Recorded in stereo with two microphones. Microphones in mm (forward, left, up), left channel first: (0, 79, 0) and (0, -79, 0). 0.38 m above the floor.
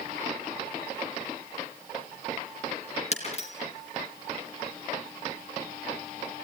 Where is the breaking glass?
40° left (ahead or behind), 3.5 m.